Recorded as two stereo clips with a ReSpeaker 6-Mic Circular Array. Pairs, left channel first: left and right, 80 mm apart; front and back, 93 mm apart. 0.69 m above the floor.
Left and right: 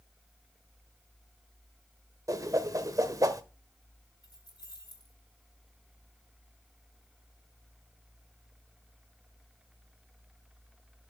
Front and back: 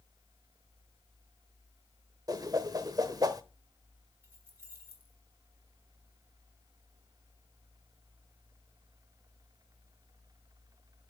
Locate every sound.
2.3 s a whoosh: 135° right, 0.9 m
4.2 s keys jangling: 115° left, 4 m